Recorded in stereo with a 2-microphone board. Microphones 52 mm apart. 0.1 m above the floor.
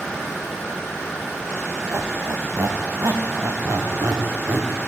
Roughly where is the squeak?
Right.